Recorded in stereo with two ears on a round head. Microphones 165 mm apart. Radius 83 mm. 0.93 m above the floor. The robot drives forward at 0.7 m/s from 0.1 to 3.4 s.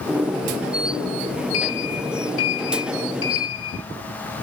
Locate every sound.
1.5 s a sliding door: 75° left (ahead or behind), 4.5 m; by 3.8 s 85° left, 4.5 m